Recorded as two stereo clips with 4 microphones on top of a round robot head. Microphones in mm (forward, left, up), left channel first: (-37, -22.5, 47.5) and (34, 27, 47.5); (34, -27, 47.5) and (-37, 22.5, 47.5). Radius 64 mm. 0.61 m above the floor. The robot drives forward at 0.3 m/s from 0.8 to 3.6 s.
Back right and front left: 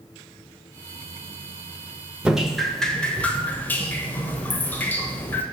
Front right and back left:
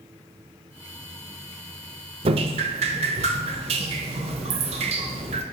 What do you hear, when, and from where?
2.2 s dripping: 115° left, 0.6 m; by 5.4 s 140° left, 0.8 m